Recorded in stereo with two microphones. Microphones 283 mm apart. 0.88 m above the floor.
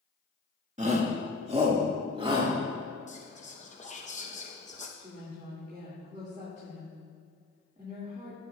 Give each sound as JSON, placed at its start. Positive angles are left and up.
{"t": 0.8, "sound": "a shout", "side_deg": -25, "distance_m": 1.4}
{"t": 3.1, "sound": "whispering", "side_deg": 25, "distance_m": 0.8}
{"t": 5.0, "sound": "a woman speaking", "side_deg": -25, "distance_m": 2.0}